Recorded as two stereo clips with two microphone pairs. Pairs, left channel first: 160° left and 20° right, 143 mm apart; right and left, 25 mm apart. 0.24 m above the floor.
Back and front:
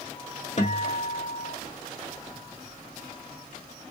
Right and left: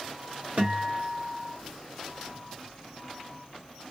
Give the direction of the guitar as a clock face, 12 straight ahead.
8 o'clock.